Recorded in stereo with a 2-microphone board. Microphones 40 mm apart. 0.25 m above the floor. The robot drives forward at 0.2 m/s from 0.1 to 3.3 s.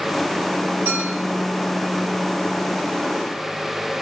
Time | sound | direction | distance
0.8 | a clink | 60° right (ahead or behind) | 1.4 m